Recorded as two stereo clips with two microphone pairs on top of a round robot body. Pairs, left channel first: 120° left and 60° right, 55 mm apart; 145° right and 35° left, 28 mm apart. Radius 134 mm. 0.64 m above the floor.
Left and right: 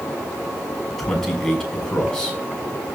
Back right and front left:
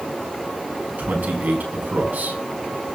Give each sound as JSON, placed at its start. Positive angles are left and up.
{"t": 1.0, "sound": "a man speaking", "azimuth_deg": 35, "distance_m": 6.0}